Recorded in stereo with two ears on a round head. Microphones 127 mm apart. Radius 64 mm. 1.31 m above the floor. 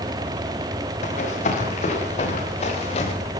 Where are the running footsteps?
50° left (ahead or behind), 9 m; by 3.1 s 45° left (ahead or behind), 7 m.